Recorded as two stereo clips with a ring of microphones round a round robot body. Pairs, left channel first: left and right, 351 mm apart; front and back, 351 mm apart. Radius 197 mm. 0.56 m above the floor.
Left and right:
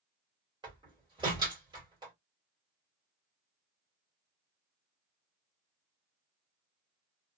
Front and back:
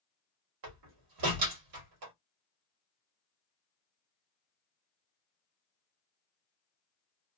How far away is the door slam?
About 1.4 m.